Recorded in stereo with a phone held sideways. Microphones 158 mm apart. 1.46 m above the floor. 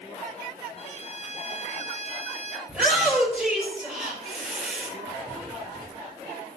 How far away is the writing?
About 1.4 m.